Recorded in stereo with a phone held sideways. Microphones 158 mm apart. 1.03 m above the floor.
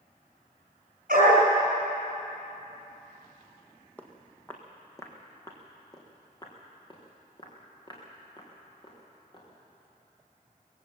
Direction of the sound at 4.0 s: 10° left (ahead or behind).